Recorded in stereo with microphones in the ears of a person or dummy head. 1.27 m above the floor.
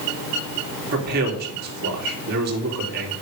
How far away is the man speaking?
About 3.5 m.